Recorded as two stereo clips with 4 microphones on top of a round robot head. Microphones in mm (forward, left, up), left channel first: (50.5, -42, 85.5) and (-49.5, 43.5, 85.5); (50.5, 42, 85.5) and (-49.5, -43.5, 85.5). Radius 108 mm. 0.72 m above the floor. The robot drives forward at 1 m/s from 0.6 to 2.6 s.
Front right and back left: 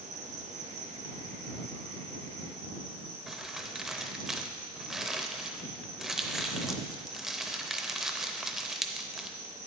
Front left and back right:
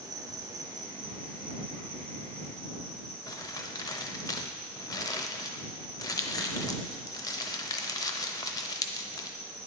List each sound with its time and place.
0.0 s an insect: 160° left, 0.9 m; by 9.7 s 175° left, 3 m
3.3 s crumpling: 55° left, 0.7 m